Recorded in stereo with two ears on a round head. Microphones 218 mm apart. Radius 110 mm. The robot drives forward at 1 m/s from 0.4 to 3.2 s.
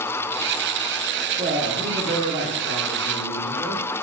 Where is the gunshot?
No gunshot in this recording.